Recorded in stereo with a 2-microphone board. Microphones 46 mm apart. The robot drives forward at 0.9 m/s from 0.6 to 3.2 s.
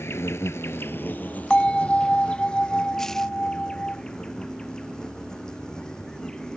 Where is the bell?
20° left (ahead or behind); by 4.0 s 25° left (ahead or behind).